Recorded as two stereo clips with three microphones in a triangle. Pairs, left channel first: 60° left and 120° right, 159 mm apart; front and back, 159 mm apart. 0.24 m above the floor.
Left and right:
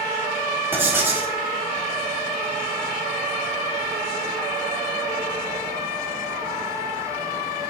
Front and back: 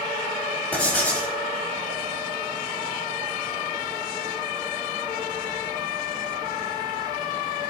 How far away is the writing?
About 0.9 m.